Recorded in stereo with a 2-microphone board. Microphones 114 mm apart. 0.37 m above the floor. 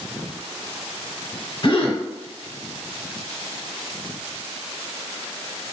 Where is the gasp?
50° left (ahead or behind), 0.6 m.